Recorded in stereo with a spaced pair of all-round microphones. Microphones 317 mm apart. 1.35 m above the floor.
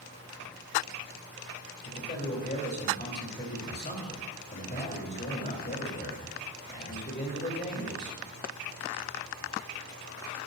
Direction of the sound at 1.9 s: 30° left (ahead or behind).